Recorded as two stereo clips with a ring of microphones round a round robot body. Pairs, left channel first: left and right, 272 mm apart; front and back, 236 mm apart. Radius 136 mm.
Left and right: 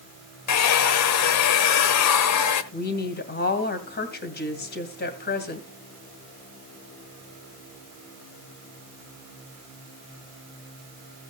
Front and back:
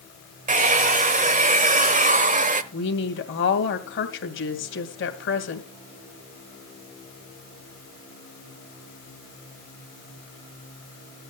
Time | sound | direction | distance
0.5 | a hair dryer | 120° left | 1.0 m
2.7 | a woman speaking | 35° left | 2.5 m